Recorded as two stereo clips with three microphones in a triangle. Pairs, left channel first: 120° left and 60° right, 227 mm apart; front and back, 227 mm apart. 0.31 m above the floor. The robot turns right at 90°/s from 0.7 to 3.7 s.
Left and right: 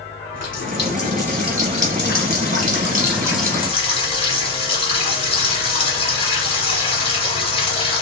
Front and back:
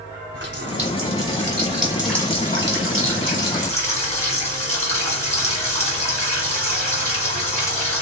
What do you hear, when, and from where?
0.3 s a running tap: 145° left, 1.5 m; by 8.0 s 55° left, 1.5 m